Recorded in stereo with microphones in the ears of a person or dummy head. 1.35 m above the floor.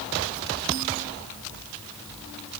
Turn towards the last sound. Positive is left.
No sound to turn to.